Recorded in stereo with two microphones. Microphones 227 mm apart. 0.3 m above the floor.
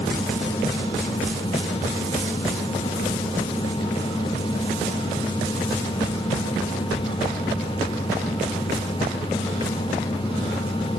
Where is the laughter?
No laughter in this recording.